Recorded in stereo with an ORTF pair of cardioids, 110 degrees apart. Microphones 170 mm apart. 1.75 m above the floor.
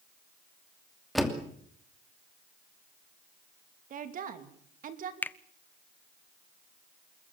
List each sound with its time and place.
1.1 s a door slam: straight ahead, 2.5 m
3.9 s a woman speaking: 55° right, 3 m
5.2 s a finger snap: 10° left, 0.6 m